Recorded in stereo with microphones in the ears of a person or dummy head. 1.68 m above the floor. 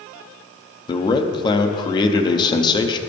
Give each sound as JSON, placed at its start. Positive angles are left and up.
{"t": 0.9, "sound": "a man speaking", "side_deg": 25, "distance_m": 0.7}